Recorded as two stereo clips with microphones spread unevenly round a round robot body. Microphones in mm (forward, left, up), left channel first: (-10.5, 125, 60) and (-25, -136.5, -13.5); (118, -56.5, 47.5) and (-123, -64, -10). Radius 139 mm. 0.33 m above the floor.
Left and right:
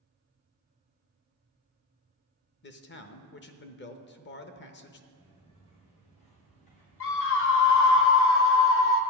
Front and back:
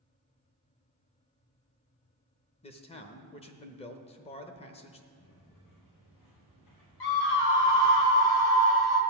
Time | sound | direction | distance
2.6 | a man speaking | 65° left | 0.9 m
5.1 | footsteps | 15° left | 4 m
7.0 | a scream | 45° left | 1.9 m